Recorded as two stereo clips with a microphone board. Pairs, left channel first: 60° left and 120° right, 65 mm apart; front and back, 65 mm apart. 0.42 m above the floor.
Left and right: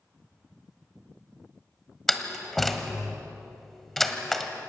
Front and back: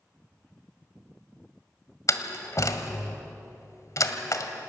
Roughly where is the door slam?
Ahead right.